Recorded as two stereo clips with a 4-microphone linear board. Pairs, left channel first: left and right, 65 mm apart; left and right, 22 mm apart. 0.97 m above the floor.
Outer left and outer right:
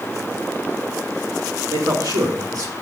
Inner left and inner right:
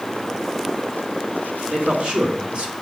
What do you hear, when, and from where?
1.7 s a man speaking: 75° right (ahead or behind), 3.5 m